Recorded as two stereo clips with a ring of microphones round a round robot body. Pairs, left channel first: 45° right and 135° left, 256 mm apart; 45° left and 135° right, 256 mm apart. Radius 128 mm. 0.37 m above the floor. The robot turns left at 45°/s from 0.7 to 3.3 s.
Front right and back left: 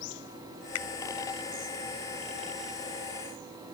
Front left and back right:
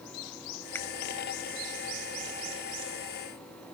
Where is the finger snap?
35° right; by 0.9 s 40° right.